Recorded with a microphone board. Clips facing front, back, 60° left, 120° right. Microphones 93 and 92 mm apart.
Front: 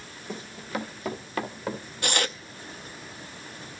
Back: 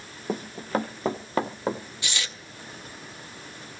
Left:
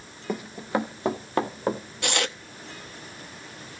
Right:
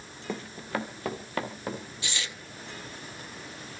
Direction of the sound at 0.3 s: 140° left.